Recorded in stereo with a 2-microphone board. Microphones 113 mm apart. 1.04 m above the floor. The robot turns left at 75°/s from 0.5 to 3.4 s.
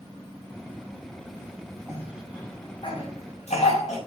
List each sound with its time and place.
1.9 s a cough: 25° right (ahead or behind), 7 m; by 4.0 s 85° left, 7 m